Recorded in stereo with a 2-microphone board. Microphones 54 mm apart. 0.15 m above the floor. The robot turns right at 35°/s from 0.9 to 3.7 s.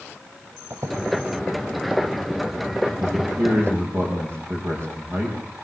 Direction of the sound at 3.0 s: 75° right (ahead or behind).